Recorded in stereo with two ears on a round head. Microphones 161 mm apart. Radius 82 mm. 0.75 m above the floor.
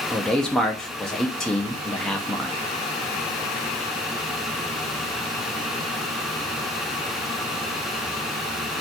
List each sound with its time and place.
0.1 s a man speaking: 5° left (ahead or behind), 0.6 m